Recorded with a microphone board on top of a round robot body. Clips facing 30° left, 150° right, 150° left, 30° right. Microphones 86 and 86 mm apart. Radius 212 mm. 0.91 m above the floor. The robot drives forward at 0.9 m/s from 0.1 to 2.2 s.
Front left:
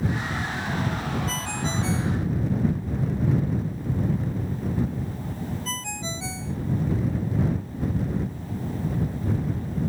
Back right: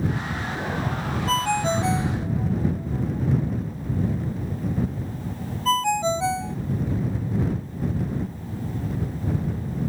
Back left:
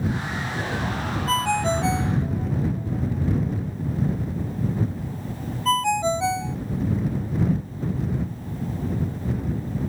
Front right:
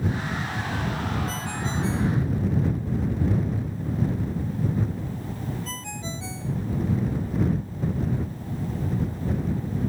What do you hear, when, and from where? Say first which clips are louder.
1.3 s a ringtone: back right 7 dB, back left 9 dB; 175° left